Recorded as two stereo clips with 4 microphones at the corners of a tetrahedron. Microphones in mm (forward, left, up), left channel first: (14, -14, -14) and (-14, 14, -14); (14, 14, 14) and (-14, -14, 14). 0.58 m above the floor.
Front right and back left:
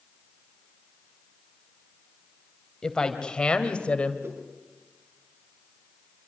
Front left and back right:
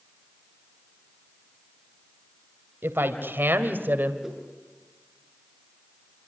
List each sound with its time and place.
2.8 s a woman speaking: 115° right, 3 m; by 4.1 s 100° right, 2.5 m
4.2 s a whoosh: 145° left, 6 m